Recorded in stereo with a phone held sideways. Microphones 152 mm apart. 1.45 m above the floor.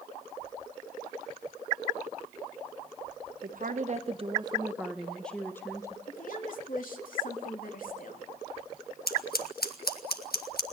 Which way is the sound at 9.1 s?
85° left.